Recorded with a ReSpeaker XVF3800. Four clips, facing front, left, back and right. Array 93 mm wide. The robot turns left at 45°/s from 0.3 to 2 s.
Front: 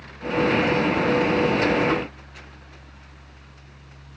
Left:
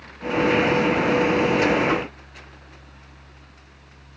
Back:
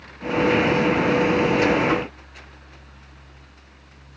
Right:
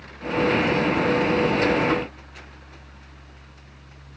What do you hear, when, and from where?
Only background noise.